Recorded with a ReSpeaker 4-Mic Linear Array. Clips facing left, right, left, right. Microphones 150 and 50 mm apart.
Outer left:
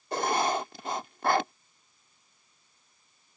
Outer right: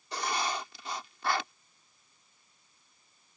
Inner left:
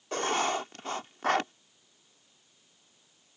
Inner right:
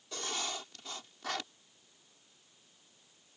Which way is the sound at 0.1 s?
50° left (ahead or behind).